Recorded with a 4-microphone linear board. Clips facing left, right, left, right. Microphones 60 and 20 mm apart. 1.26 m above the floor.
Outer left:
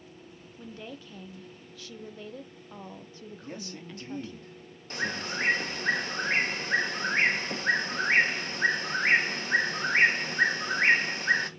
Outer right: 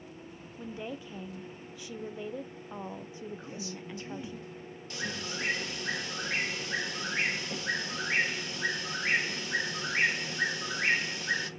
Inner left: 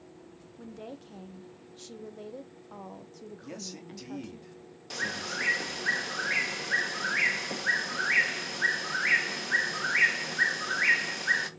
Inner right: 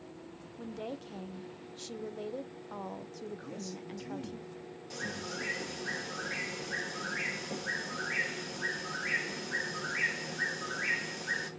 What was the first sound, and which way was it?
A woman speaking, 15° right (ahead or behind).